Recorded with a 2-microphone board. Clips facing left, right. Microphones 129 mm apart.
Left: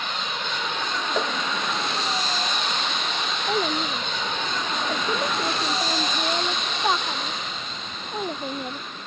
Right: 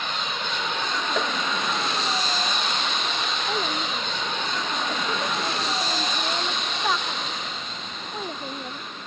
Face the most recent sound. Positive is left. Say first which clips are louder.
# left 6 dB
turn(degrees=20)  # may be behind; listen again after turning